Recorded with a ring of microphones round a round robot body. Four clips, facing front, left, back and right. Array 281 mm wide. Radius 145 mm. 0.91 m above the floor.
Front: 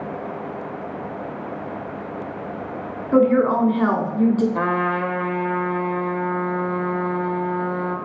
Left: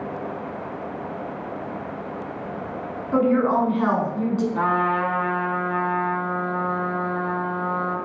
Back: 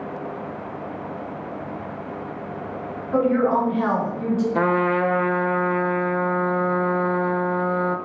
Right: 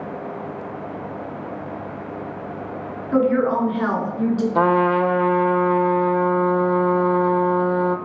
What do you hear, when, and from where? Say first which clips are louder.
3.1 s a woman speaking: right 1 dB, front 3 dB; 10° right, 2.0 m
4.5 s a trumpet: right 7 dB, back 2 dB; 115° right, 0.5 m